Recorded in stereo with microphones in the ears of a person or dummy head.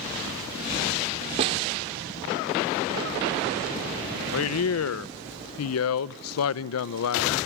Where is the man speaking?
85° left, 0.7 m.